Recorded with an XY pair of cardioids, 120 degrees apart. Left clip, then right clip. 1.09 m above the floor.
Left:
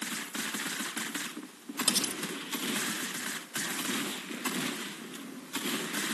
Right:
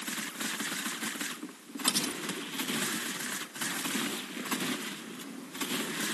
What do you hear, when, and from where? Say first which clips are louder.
1.9 s cutlery clinking: even; 20° left